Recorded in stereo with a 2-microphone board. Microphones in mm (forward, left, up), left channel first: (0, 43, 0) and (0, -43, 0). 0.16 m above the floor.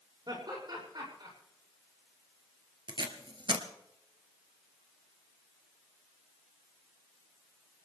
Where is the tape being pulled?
65° right (ahead or behind), 1.7 m.